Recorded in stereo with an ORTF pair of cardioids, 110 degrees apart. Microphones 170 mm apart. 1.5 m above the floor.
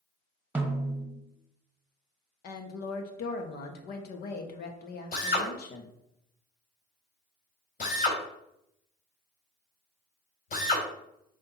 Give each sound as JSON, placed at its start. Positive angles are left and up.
{"t": 0.6, "sound": "a snare drum", "azimuth_deg": -10, "distance_m": 1.1}
{"t": 2.4, "sound": "a woman speaking", "azimuth_deg": 65, "distance_m": 1.5}
{"t": 5.1, "sound": "a drill", "azimuth_deg": 55, "distance_m": 3.0}